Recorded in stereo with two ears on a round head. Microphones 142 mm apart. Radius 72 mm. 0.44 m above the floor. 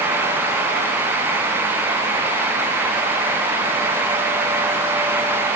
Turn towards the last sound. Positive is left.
No sound to turn to.